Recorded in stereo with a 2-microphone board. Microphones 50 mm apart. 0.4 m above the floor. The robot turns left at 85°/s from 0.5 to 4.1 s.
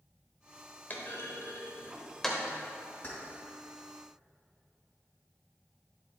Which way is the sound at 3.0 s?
30° left (ahead or behind).